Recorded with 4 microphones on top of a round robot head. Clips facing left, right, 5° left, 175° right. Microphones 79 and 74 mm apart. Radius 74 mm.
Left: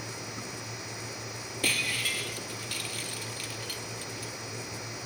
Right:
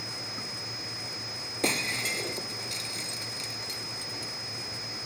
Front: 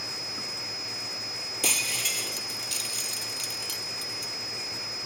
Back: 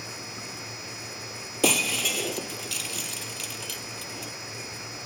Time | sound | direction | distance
1.6 | breaking glass | 165° right | ?